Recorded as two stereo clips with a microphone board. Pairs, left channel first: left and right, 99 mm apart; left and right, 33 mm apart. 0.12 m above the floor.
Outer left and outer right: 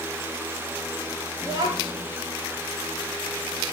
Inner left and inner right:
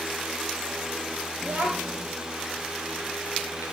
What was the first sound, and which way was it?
A child speaking, 40° right (ahead or behind).